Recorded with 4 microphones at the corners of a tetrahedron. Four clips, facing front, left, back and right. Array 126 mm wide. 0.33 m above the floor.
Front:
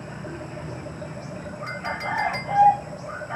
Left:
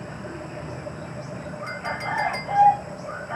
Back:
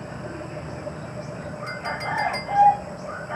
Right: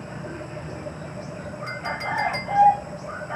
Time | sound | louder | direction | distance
1.7 | a clink | even, even | straight ahead | 1.5 m